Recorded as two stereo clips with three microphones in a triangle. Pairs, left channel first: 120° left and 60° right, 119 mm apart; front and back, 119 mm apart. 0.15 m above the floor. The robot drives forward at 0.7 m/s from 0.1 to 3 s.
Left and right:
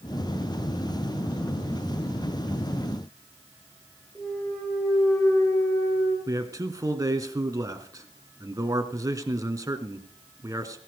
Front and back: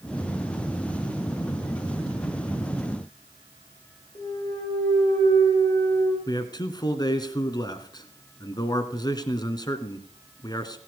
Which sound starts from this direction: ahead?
A man speaking, at 6.3 s.